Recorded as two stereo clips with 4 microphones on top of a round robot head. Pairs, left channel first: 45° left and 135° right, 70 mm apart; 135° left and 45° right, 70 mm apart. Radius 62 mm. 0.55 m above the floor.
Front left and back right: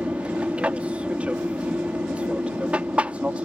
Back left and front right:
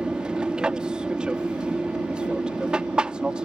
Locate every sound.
0.0 s an aircraft: 100° right